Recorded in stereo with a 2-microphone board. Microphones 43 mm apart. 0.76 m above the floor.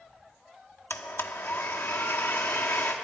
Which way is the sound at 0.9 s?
60° left (ahead or behind).